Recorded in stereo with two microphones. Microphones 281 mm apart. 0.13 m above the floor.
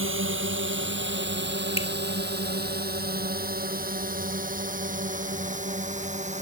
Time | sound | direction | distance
0.0 | a drone | 45° right (ahead or behind) | ?
1.8 | a finger snap | 20° left (ahead or behind) | ?